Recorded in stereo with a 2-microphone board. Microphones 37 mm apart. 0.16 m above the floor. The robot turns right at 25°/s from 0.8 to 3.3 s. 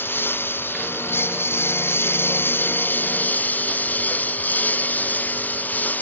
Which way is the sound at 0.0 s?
70° left.